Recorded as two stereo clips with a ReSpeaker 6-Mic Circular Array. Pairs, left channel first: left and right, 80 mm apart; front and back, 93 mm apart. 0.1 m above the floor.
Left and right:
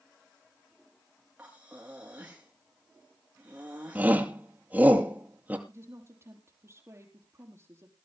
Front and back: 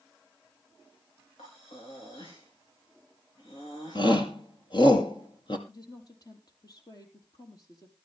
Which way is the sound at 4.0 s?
25° right.